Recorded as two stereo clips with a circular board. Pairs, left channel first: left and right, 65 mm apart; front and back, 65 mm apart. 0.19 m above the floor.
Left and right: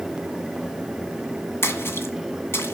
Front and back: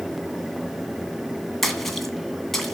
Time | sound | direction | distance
1.6 | a splash | 85° left | 1.6 m